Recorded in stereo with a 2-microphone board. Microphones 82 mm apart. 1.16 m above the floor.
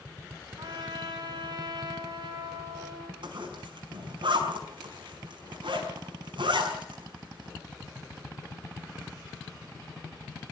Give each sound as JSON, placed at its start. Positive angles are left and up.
{"t": 0.6, "sound": "a trumpet", "side_deg": -65, "distance_m": 5.0}
{"t": 3.2, "sound": "a zipper", "side_deg": -85, "distance_m": 6.0}